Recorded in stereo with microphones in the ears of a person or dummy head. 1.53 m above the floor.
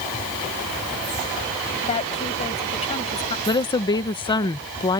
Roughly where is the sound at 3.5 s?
Left.